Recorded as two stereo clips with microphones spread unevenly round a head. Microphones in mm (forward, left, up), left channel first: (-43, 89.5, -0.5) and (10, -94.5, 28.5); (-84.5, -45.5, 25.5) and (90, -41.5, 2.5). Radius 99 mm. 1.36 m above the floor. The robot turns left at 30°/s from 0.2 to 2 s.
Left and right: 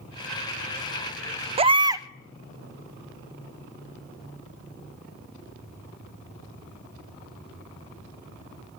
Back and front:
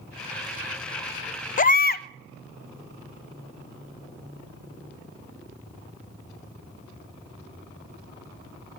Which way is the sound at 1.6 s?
135° right.